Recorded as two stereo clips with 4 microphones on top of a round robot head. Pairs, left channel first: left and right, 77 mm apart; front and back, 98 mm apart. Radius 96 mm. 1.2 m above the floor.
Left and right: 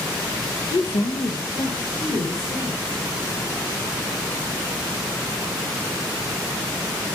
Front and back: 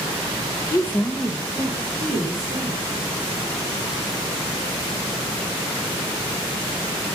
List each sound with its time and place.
0.7 s a woman speaking: 45° left, 0.8 m; by 2.9 s 125° left, 3.5 m